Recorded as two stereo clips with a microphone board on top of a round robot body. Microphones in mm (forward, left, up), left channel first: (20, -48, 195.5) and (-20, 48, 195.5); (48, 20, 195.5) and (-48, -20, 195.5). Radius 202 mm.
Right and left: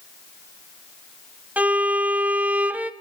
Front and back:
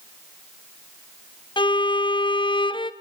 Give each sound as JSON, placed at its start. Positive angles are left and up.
{"t": 1.6, "sound": "a violin", "azimuth_deg": 40, "distance_m": 1.1}